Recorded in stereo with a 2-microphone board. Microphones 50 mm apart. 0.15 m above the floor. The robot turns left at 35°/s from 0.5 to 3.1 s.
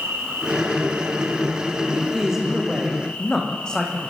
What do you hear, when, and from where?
0.0 s an insect: 120° right, 6 m; by 4.1 s 145° left, 6 m
1.9 s a man speaking: 155° right, 7 m; by 4.1 s 165° left, 7 m